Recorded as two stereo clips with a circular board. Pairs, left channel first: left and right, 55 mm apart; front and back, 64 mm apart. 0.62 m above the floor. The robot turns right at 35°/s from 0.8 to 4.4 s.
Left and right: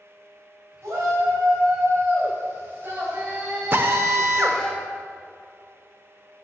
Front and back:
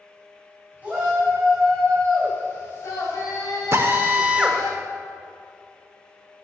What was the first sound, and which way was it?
A shout, 115° right.